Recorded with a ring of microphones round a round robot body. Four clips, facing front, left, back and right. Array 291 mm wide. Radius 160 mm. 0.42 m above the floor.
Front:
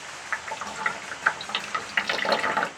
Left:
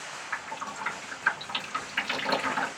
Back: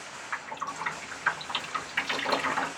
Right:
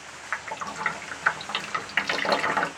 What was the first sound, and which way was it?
Dripping, 50° right.